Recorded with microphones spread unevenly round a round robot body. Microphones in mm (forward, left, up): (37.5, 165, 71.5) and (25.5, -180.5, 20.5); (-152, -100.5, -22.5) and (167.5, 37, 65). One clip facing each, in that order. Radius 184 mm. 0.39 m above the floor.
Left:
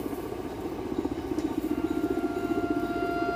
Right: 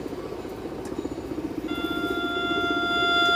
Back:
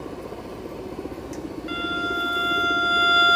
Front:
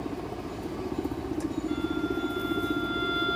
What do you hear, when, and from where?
0.0 s a helicopter: 30° left
1.7 s a violin: 145° right